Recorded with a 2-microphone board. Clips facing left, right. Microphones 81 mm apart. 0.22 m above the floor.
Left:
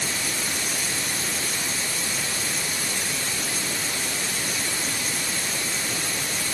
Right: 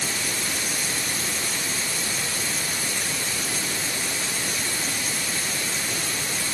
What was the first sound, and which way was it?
Only background noise.